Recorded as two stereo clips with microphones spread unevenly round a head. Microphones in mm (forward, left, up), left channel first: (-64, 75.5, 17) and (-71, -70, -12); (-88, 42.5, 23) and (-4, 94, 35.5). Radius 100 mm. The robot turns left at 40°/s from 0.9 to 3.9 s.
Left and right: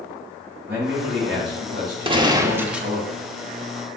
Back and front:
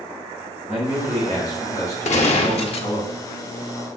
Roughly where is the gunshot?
Behind right.